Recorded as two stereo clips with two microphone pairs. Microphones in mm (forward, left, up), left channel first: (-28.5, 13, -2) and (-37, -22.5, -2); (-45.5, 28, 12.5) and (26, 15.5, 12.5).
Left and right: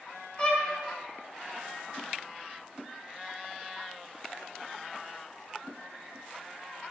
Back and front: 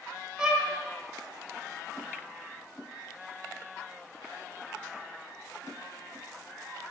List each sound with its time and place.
0.4 s a violin: 50° left, 1.1 m